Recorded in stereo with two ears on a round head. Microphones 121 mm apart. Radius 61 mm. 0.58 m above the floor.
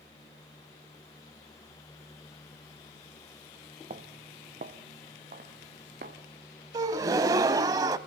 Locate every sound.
3.9 s footsteps: 50° right (ahead or behind), 1.1 m; by 6.2 s 70° right (ahead or behind), 3 m
6.7 s a gasp: 25° right (ahead or behind), 0.7 m